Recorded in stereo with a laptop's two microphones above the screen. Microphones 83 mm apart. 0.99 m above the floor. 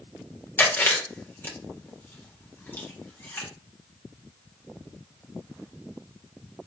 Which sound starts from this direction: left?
Chewing, at 0.6 s.